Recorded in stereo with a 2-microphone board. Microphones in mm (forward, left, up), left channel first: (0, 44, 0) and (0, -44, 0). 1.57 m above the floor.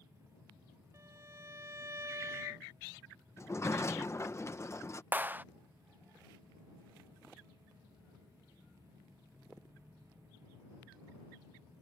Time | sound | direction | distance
0.9 | a violin | 35° right (ahead or behind) | ?
3.4 | a sliding door | 35° left (ahead or behind) | ?
5.1 | a clap | 20° right (ahead or behind) | ?